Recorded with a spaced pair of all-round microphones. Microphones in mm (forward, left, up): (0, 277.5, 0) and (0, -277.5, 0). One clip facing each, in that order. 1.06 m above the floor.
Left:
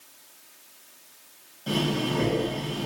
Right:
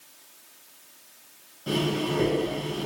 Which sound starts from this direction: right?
Breathing, at 1.7 s.